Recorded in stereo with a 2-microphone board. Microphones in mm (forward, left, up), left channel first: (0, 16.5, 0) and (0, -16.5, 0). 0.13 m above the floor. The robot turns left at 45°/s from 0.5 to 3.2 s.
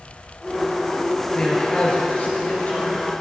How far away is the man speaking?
About 1.9 m.